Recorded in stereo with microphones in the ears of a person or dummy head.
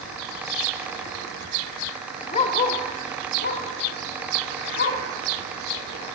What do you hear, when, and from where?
2.3 s a dog barking: 40° left (ahead or behind), 3 m; by 5.0 s 70° left (ahead or behind), 5 m